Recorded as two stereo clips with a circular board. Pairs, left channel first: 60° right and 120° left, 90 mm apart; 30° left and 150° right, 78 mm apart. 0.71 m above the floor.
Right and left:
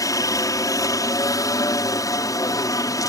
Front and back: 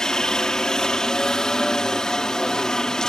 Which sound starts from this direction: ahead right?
A helicopter, at 0.0 s.